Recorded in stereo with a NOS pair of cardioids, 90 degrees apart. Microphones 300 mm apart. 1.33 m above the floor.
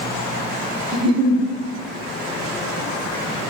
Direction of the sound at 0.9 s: 20° right.